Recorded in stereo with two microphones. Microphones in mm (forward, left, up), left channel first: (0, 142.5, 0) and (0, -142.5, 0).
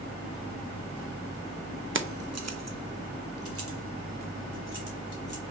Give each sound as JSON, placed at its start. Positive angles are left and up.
{"t": 1.9, "sound": "keys jangling", "side_deg": -45, "distance_m": 0.5}